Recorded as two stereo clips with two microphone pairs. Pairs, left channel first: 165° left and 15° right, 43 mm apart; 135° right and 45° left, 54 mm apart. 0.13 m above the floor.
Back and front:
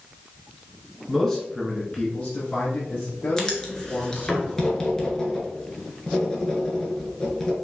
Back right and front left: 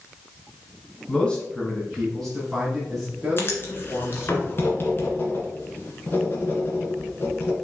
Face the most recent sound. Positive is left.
turn(degrees=-130)